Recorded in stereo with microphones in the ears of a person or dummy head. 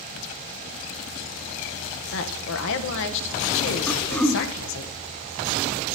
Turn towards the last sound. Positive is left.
turn(degrees=10)  # may be behind; listen again after turning